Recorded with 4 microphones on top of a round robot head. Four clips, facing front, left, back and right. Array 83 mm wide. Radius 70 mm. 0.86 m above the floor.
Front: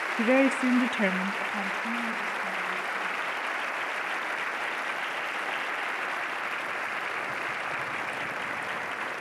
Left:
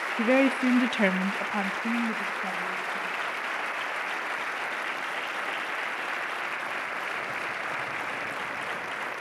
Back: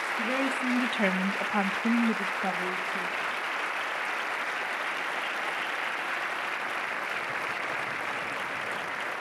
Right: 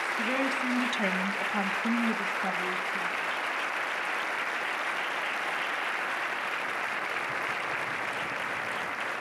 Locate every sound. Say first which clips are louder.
0.2 s a woman speaking: left 10 dB, front 8 dB; 45° left, 1.3 m; by 3.4 s 165° right, 2.5 m